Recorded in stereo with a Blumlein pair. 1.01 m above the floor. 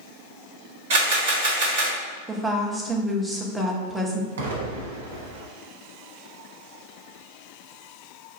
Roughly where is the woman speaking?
Ahead.